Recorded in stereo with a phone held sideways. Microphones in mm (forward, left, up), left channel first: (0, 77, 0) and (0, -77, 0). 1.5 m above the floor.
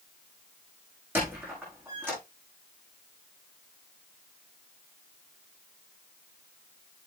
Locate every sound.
1.1 s a squeak: 15° right (ahead or behind), 6 m